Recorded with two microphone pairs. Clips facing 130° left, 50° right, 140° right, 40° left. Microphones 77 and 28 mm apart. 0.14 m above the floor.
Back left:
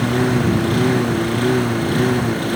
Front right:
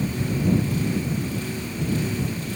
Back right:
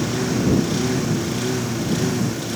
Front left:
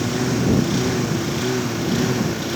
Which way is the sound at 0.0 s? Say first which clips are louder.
Back left 8 dB, even; 125° left.